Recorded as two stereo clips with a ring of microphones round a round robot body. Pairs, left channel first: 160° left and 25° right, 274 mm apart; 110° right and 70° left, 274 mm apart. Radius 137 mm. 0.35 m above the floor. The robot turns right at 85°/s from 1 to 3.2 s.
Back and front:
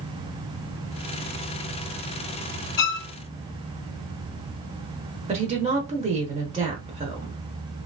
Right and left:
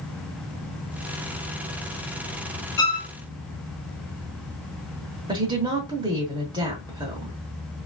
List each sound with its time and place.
2.8 s a violin: 165° left, 0.5 m; by 3.1 s 170° right, 0.5 m
5.3 s a woman speaking: 15° left, 0.8 m